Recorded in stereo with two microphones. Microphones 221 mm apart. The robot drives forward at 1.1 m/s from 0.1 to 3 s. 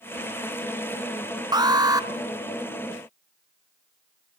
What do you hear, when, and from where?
1.5 s an alarm: 20° right (ahead or behind), 1.1 m; by 2.1 s 15° right (ahead or behind), 1.3 m